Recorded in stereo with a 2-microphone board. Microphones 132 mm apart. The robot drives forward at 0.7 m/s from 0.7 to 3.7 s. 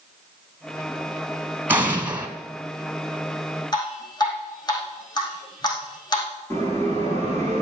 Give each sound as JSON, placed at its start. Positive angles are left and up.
{"t": 1.7, "sound": "an explosion", "side_deg": -15, "distance_m": 1.7}
{"t": 3.7, "sound": "dripping", "side_deg": 30, "distance_m": 5.0}
{"t": 6.5, "sound": "a bell", "side_deg": 20, "distance_m": 7.5}